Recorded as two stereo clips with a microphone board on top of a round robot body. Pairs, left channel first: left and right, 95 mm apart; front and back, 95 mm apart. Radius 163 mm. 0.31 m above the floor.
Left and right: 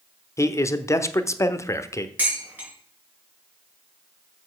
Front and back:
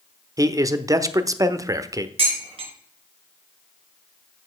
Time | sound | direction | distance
0.4 | a man speaking | 140° left | 1.2 m
2.2 | dishes clattering | 165° right | 4.5 m